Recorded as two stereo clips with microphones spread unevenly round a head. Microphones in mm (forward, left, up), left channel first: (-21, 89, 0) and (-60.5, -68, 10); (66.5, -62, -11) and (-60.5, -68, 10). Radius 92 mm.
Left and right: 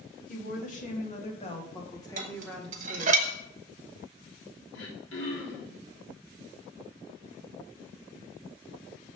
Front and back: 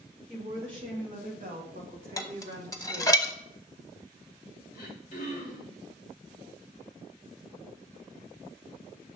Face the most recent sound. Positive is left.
turn(degrees=65)